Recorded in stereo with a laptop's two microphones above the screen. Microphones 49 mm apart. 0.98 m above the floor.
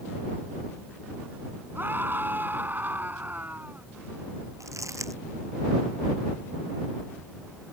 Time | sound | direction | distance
1.8 | a scream | 40° right (ahead or behind) | ?
4.6 | crumpling | 75° right (ahead or behind) | ?